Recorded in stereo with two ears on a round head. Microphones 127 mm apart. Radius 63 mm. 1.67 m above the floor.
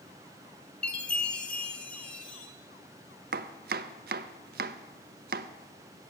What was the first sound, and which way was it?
A chime, 10° left (ahead or behind).